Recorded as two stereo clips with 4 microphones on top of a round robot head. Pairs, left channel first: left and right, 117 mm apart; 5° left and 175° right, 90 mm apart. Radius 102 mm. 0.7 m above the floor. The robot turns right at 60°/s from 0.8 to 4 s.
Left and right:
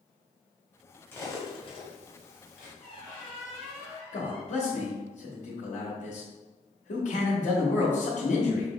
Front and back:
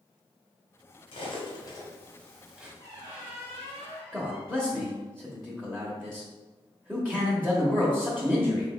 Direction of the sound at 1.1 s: 20° left.